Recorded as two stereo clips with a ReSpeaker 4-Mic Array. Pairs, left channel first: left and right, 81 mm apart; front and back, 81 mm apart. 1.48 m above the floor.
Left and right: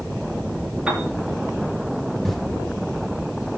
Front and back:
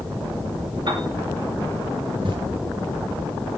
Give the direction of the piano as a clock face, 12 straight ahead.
6 o'clock.